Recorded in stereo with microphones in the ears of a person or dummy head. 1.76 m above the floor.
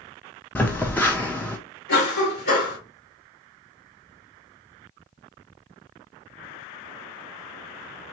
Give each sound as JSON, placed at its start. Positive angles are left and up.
{"t": 0.6, "sound": "a phone buzzing", "side_deg": 10, "distance_m": 0.5}
{"t": 1.9, "sound": "a cough", "side_deg": 60, "distance_m": 2.0}